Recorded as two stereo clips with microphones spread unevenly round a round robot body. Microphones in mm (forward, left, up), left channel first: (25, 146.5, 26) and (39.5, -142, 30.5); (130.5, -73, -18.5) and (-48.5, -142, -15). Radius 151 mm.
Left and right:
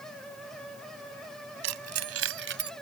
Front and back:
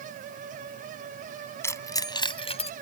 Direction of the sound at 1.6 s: 55° right.